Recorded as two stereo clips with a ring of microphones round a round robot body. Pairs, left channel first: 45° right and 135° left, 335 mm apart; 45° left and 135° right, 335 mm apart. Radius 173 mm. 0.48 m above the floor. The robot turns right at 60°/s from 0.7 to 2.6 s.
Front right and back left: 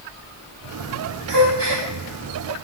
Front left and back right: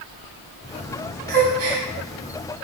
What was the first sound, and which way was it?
A gasp, 160° left.